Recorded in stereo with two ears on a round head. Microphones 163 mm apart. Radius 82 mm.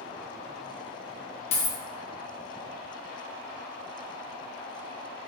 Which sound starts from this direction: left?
A dropped coin, at 1.5 s.